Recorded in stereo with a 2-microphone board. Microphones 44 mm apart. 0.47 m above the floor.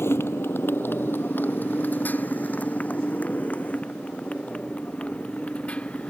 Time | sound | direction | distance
0.0 | a motorcycle | 70° left (ahead or behind) | ?